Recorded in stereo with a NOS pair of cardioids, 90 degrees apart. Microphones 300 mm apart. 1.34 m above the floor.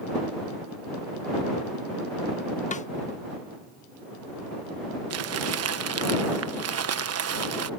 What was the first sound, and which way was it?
A snare drum, 25° left.